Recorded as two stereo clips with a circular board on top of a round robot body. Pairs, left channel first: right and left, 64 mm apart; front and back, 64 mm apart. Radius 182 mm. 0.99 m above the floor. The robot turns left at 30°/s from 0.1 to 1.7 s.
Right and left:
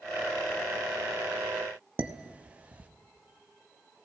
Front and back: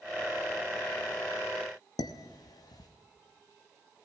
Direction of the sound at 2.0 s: 20° left.